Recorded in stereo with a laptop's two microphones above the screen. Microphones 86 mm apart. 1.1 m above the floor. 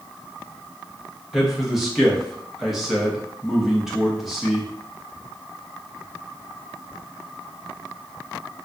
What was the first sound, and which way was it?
A man speaking, 5° right (ahead or behind).